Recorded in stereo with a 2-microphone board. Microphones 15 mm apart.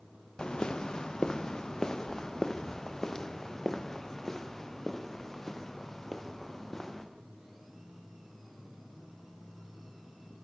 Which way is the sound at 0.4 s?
70° left (ahead or behind).